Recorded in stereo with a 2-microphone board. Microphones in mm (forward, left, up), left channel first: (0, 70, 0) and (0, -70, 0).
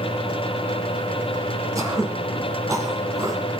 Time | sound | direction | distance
1.8 | throat clearing | 25° right (ahead or behind) | 2 m